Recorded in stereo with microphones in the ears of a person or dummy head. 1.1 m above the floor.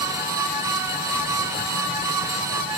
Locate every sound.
Only background noise.